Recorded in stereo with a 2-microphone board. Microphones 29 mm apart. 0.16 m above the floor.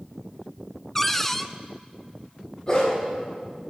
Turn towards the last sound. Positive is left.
turn(degrees=30)  # may be behind; listen again after turning